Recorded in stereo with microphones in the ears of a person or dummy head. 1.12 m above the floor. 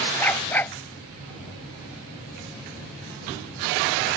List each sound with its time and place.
0.2 s a dog barking: 10° left (ahead or behind)